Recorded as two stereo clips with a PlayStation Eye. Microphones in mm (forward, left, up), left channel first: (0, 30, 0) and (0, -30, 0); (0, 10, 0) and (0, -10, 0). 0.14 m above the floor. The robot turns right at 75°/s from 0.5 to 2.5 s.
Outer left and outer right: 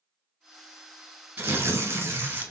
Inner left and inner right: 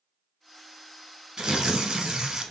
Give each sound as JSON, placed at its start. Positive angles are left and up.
{"t": 1.4, "sound": "tearing paper", "azimuth_deg": -135, "distance_m": 1.1}